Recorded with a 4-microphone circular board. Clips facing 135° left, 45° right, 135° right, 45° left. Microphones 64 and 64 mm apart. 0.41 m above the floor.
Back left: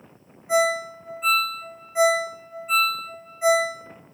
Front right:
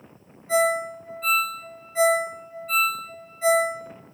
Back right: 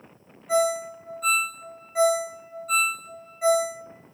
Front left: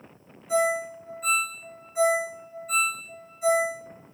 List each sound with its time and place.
0.5 s a ringtone: 155° right, 0.7 m